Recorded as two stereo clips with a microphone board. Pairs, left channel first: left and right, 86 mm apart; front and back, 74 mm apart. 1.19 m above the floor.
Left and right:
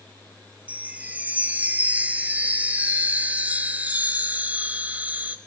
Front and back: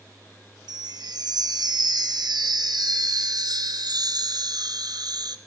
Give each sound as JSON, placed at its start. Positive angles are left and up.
{"t": 0.7, "sound": "a chime", "azimuth_deg": -165, "distance_m": 1.0}